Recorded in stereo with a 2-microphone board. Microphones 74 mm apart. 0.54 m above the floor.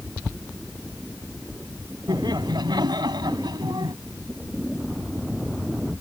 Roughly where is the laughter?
Right.